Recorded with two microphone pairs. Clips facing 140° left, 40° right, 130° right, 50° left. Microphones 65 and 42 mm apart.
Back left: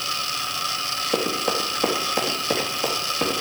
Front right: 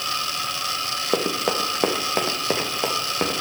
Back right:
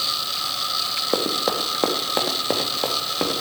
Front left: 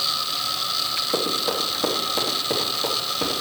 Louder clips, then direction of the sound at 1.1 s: Front right 1 dB, back right 2 dB; 90° right.